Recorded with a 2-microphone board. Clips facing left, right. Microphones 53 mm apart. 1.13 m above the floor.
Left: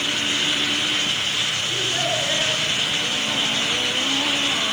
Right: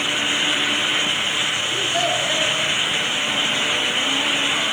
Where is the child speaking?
15° left (ahead or behind), 9 m.